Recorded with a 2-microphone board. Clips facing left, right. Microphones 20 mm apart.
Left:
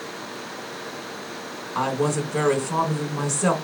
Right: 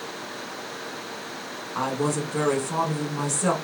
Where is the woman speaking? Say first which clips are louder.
Left 2 dB; 15° left (ahead or behind), 1.1 m.